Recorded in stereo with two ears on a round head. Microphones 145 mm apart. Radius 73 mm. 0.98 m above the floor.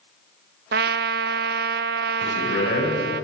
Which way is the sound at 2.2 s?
75° left (ahead or behind).